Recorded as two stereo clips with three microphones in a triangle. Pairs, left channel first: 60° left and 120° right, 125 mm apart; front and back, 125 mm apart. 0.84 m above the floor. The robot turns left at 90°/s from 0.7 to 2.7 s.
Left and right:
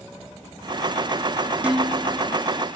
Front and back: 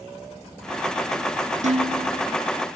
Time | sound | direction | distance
1.6 | dishes clattering | 160° left | 1.8 m